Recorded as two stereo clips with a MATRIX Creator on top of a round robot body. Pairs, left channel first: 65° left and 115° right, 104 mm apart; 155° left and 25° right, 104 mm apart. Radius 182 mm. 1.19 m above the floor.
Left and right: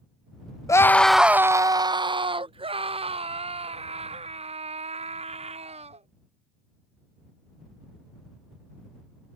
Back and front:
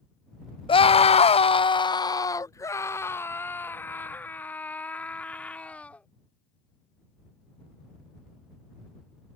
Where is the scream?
125° left; by 6.1 s 125° right.